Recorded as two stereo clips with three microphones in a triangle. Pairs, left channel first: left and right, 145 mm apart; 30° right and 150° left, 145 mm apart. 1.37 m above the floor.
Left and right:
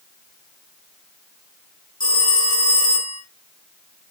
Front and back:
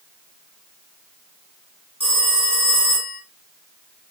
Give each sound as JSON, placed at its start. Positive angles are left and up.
{"t": 2.0, "sound": "a phone ringing", "azimuth_deg": 100, "distance_m": 4.0}